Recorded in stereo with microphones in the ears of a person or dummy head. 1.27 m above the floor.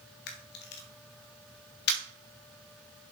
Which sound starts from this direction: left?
A camera shutter, at 0.3 s.